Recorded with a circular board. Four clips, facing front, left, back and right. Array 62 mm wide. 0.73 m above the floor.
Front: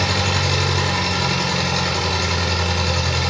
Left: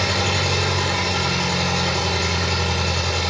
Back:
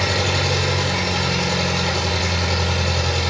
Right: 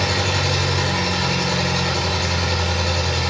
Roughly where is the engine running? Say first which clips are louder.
Even, even; ahead.